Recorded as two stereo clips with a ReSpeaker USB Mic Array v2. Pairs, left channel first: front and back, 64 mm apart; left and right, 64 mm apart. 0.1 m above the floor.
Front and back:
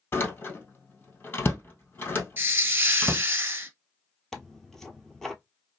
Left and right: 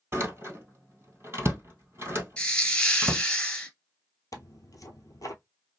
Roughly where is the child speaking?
I don't hear a child speaking.